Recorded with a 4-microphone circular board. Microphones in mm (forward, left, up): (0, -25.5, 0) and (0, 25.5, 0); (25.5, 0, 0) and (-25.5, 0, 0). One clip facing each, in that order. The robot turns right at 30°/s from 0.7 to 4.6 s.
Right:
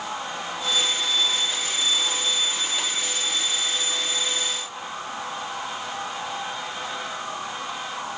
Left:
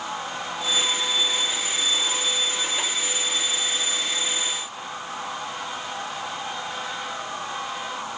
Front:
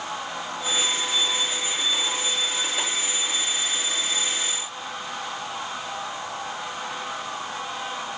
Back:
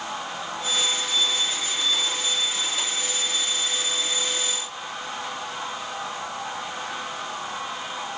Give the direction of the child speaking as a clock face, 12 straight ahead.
I don't hear a child speaking.